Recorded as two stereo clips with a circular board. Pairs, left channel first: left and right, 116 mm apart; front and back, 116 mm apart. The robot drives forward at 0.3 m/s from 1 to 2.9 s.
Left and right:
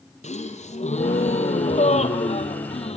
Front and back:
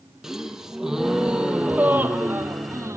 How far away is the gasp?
About 1.5 m.